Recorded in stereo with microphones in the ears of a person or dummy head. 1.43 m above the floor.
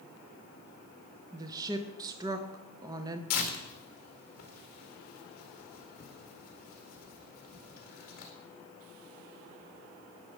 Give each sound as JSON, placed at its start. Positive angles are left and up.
{"t": 1.3, "sound": "a woman speaking", "side_deg": -20, "distance_m": 0.9}
{"t": 3.3, "sound": "tearing paper", "side_deg": 45, "distance_m": 1.8}